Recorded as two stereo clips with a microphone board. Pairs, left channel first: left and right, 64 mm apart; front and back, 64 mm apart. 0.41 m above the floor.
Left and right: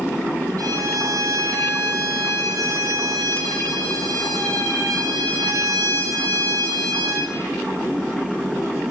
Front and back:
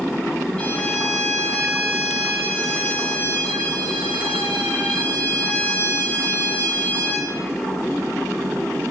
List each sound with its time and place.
0.6 s a violin: 70° right, 5 m